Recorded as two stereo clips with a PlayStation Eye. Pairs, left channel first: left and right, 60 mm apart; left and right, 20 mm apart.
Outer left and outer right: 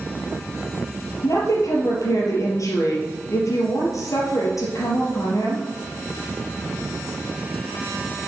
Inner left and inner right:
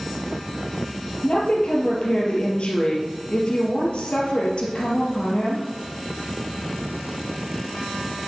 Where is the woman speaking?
60° left (ahead or behind), 3.5 m.